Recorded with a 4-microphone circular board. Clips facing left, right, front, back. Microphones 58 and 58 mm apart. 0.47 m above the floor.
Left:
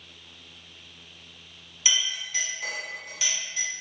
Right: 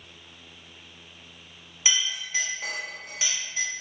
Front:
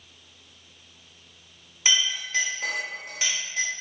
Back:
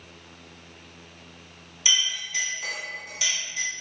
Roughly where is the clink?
Ahead right.